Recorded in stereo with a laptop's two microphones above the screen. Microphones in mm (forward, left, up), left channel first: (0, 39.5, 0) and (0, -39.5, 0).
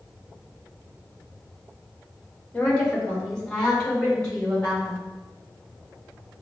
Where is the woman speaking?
20° left (ahead or behind), 1.8 m; by 5.0 s 5° left (ahead or behind), 4 m.